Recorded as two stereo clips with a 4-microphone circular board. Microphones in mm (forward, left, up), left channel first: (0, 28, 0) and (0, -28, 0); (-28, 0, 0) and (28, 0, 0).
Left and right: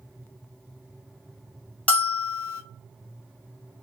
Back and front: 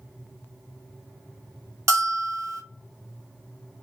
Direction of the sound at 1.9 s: 25° left.